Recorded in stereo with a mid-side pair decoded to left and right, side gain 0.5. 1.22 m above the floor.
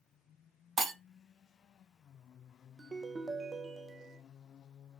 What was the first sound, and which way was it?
Breaking glass, 50° right.